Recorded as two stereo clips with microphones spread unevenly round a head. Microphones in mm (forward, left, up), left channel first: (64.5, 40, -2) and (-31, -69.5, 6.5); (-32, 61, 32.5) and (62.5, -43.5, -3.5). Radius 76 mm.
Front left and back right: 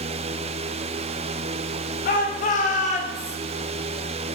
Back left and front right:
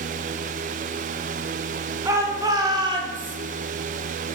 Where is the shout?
20° left, 4 m; by 3.4 s 5° left, 3.5 m.